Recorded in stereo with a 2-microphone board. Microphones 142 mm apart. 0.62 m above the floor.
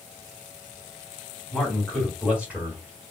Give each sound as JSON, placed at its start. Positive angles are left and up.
{"t": 1.5, "sound": "a man speaking", "side_deg": 5, "distance_m": 2.5}